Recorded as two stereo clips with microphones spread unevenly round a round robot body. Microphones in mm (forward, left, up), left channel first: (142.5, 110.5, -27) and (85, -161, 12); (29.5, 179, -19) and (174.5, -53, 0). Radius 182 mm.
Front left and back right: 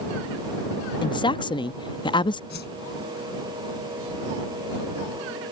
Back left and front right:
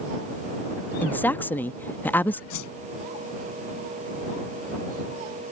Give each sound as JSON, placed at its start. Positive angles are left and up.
{"t": 1.0, "sound": "a woman speaking", "azimuth_deg": 55}
{"t": 2.5, "sound": "a whoosh", "azimuth_deg": 145}